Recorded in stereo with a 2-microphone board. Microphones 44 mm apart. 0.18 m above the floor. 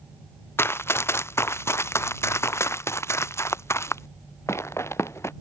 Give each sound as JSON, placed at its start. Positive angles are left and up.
{"t": 0.6, "sound": "running footsteps", "side_deg": 70}